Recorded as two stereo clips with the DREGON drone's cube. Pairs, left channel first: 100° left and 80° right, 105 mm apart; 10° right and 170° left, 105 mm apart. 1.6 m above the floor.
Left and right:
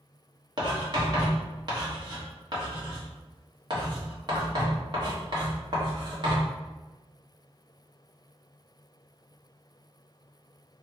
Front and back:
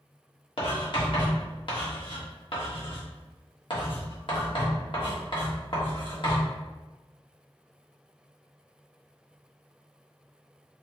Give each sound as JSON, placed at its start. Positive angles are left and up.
{"t": 0.6, "sound": "writing", "azimuth_deg": -35, "distance_m": 1.4}